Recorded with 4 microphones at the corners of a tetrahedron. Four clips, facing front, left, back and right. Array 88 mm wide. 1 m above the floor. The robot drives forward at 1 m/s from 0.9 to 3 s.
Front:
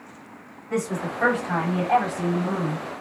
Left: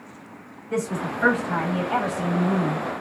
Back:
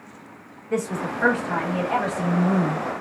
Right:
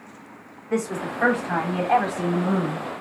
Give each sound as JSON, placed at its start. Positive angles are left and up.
{"t": 0.7, "sound": "a woman speaking", "azimuth_deg": -50, "distance_m": 3.0}